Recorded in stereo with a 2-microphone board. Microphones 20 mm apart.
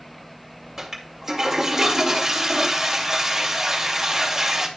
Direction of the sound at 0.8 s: 20° right (ahead or behind).